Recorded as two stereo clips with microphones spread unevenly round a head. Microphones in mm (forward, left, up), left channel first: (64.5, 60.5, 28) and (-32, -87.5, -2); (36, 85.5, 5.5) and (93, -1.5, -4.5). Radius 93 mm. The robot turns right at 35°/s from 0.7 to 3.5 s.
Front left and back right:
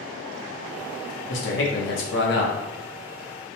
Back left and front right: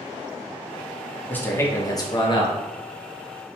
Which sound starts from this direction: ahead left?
A man speaking, at 1.3 s.